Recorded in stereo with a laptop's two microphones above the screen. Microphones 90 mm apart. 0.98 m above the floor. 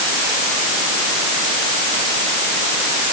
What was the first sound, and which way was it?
Only background noise.